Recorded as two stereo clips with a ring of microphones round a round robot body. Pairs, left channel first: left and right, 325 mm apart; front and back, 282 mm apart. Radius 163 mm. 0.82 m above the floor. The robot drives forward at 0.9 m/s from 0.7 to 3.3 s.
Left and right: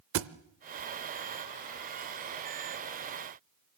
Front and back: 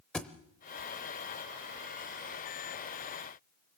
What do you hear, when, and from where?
0.1 s a thud: 85° right, 0.6 m